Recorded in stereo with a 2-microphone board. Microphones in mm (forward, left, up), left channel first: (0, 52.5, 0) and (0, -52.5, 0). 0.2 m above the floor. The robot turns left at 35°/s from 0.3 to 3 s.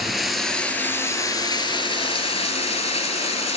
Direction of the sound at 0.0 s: Straight behind.